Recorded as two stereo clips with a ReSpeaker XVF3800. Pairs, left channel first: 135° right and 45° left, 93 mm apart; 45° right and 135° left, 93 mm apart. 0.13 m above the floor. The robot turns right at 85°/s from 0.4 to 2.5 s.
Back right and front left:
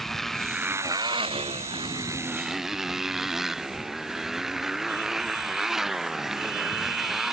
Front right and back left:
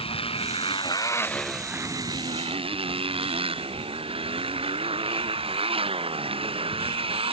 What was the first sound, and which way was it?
A motorcycle, 50° right.